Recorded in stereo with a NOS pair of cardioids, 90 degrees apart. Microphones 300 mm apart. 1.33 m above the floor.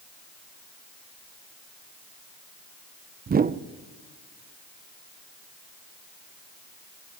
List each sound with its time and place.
3.3 s a whoosh: 30° right, 0.8 m